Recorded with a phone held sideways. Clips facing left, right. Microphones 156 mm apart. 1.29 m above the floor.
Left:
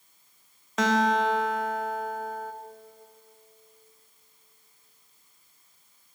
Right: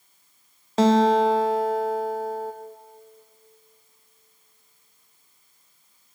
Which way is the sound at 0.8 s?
30° right (ahead or behind).